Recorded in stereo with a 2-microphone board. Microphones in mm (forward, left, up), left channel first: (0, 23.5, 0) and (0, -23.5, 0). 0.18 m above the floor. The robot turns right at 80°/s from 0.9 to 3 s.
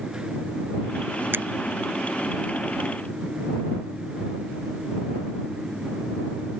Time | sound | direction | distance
1.3 | a finger snap | 55° right (ahead or behind) | ?